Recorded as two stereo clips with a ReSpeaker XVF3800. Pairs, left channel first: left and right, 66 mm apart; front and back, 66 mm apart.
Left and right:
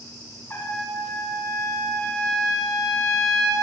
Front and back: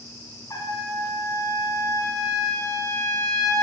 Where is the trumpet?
30° left, 8 m.